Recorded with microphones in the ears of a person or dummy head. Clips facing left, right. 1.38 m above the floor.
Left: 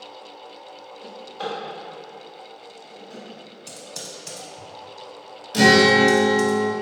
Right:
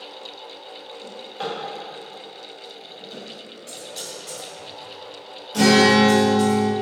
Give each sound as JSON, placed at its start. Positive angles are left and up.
{"t": 1.0, "sound": "a drawer", "side_deg": -20, "distance_m": 1.2}
{"t": 3.7, "sound": "typing on a keyboard", "side_deg": 50, "distance_m": 0.7}
{"t": 5.5, "sound": "a guitar", "side_deg": 25, "distance_m": 0.6}